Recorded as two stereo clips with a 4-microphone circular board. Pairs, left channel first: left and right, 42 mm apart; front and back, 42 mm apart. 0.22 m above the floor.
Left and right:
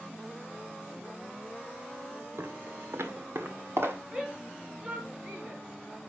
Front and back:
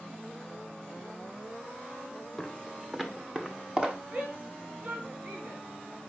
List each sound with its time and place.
2.4 s footsteps: 85° right, 1.6 m; by 4.0 s 115° right, 2.5 m
4.1 s a shout: 145° right, 2.5 m